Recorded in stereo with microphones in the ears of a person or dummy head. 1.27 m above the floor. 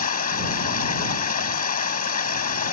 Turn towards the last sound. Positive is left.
turn(degrees=45)  # may be behind; listen again after turning